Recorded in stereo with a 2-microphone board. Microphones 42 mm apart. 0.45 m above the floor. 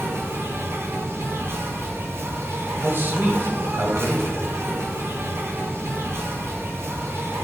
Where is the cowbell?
I don't hear a cowbell.